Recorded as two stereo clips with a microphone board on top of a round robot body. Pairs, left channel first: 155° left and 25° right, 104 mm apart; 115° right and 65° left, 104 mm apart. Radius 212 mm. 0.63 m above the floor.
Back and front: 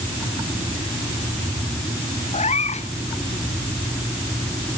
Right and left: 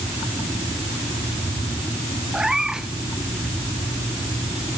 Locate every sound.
2.3 s a cat meowing: 150° left